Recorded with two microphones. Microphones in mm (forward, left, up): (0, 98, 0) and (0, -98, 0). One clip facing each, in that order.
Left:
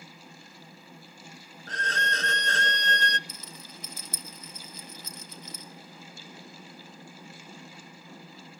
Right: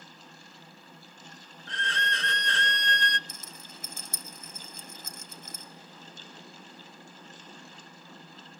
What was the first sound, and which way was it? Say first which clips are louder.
A violin: left 2 dB; 45° left (ahead or behind).